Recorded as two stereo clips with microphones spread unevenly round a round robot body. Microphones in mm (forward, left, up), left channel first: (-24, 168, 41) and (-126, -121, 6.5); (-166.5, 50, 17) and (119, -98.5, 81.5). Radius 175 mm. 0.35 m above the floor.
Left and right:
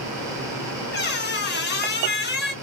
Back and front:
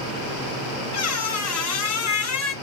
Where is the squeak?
130° left, 1.1 m.